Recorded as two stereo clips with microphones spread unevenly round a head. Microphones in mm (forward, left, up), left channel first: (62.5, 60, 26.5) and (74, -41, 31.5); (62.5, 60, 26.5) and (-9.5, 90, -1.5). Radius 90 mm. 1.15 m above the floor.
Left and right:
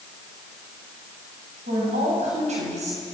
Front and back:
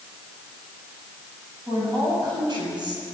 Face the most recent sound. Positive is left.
turn(degrees=-90)